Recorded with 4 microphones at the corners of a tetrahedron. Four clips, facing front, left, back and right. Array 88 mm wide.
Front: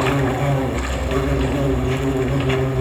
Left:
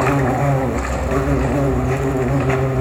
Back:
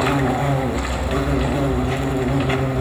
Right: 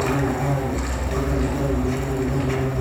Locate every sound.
0.0 s an insect: 100° left, 0.9 m